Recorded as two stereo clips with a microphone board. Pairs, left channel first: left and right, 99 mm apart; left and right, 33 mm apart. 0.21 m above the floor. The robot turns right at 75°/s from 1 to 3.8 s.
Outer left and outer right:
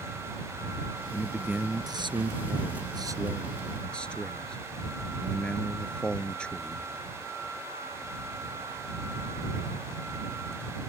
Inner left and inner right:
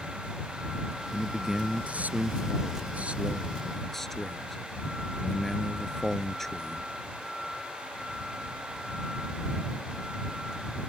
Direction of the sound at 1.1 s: 170° left.